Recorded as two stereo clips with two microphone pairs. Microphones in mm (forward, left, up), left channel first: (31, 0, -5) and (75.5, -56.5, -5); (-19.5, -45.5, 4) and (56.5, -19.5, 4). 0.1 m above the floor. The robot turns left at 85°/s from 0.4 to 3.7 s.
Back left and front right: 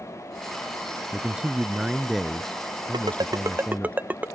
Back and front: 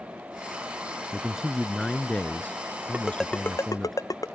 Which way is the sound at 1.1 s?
30° right.